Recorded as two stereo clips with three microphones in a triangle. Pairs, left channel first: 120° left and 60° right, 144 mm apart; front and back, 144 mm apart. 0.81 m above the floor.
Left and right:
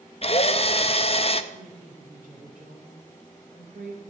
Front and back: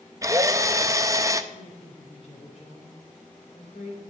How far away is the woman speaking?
About 3 m.